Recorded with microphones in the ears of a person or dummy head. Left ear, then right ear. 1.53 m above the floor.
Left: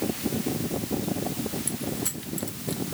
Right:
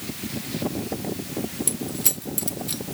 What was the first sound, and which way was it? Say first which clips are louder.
Keys jangling: right 3 dB; 15° right (ahead or behind).